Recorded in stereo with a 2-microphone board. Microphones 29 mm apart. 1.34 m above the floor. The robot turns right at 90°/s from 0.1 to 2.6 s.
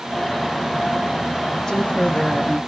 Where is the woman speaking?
20° left, 1.9 m; by 2.6 s 100° left, 1.9 m.